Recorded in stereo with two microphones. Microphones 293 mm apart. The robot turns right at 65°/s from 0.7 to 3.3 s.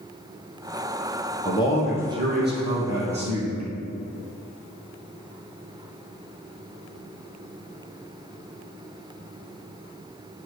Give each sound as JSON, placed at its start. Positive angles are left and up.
{"t": 1.4, "sound": "a man speaking", "azimuth_deg": 155, "distance_m": 3.0}